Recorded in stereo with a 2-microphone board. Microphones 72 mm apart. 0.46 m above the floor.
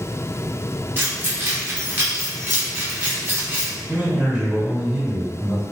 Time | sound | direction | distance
1.0 | keys jangling | 30° right (ahead or behind) | 0.7 m
3.9 | a man speaking | 15° right (ahead or behind) | 1.4 m